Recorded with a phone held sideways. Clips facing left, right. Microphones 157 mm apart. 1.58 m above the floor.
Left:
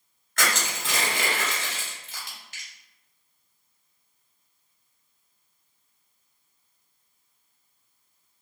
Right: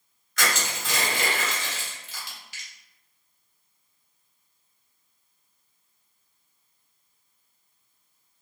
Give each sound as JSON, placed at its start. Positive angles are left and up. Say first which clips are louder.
{"t": 0.4, "sound": "crushing", "louder": "even", "side_deg": 55, "distance_m": 1.2}